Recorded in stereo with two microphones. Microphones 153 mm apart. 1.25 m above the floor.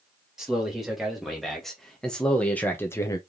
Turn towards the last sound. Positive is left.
turn(degrees=25)  # may be behind; listen again after turning